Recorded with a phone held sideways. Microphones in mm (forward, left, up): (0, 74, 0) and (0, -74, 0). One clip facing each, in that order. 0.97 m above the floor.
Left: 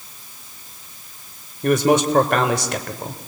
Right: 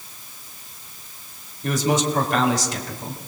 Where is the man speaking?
65° left (ahead or behind), 3.5 m.